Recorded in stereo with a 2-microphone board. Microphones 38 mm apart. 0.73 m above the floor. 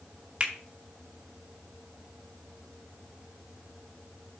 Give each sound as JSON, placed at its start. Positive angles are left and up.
{"t": 0.4, "sound": "a finger snap", "side_deg": -30, "distance_m": 1.8}